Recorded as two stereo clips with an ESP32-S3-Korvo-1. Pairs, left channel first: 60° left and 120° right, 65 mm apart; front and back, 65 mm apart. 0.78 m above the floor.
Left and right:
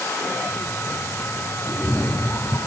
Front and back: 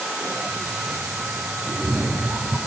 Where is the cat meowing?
110° left, 3 m.